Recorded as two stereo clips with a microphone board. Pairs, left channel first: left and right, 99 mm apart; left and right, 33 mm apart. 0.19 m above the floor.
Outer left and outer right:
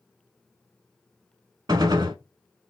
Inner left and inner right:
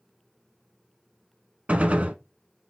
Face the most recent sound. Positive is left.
turn(degrees=-45)  # may be behind; listen again after turning